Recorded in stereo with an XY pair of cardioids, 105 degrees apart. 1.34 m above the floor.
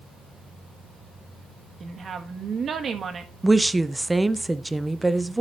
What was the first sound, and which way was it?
A woman speaking, 45° right.